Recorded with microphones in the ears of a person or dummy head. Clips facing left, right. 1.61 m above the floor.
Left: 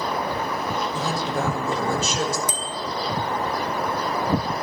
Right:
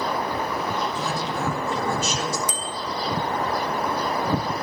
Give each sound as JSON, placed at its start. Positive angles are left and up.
{"t": 0.9, "sound": "a woman speaking", "side_deg": 75, "distance_m": 5.0}
{"t": 2.5, "sound": "a bicycle bell", "side_deg": 55, "distance_m": 2.5}